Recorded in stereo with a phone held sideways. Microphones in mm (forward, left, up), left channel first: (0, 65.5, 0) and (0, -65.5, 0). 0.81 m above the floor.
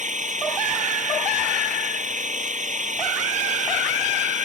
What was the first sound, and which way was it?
An engine running, 85° right.